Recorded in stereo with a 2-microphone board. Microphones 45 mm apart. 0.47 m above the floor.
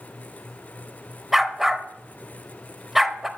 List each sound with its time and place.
1.3 s a dog barking: 5° right (ahead or behind), 0.5 m